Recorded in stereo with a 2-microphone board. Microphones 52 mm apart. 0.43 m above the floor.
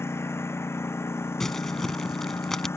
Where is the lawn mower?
60° left (ahead or behind).